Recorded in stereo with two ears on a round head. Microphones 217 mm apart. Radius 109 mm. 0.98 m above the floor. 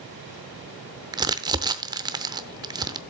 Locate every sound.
1.1 s crumpling: 15° right (ahead or behind), 0.7 m